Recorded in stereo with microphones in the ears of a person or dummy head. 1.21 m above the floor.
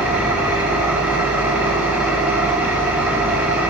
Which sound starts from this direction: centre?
An engine running, at 0.0 s.